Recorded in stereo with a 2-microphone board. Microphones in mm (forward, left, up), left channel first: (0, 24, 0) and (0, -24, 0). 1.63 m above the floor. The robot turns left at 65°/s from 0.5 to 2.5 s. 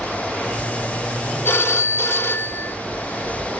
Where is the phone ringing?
125° left, 1.6 m; by 2.8 s 55° left, 1.6 m.